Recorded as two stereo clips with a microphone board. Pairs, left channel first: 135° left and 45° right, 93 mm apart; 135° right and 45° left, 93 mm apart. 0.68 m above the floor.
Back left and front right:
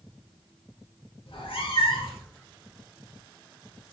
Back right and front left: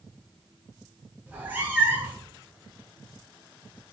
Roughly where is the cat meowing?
Behind left.